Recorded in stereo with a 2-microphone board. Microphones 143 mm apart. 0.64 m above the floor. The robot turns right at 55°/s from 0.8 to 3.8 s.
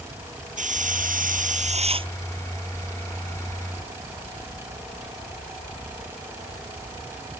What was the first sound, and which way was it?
A hiss, 110° right.